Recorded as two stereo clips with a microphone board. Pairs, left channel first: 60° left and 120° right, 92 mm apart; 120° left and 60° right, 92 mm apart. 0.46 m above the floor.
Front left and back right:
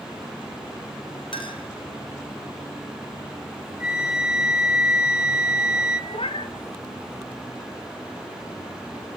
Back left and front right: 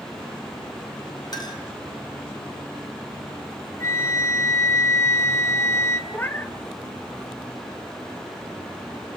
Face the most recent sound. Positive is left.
turn(degrees=50)